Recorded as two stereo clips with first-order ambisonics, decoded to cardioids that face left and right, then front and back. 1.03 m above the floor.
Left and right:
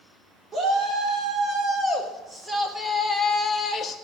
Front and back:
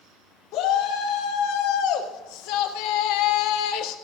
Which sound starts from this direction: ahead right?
A shout, at 0.5 s.